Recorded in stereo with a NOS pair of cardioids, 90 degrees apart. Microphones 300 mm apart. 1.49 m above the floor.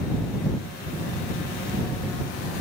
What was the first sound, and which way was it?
Only background noise.